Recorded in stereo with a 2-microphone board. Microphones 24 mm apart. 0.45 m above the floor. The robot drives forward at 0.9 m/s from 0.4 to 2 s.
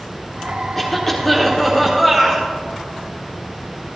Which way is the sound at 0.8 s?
5° left (ahead or behind).